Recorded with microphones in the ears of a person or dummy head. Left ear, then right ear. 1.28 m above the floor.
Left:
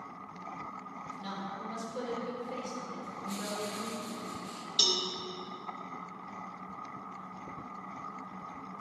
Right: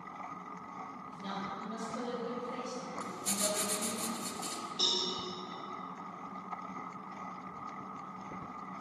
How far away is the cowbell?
About 1.6 m.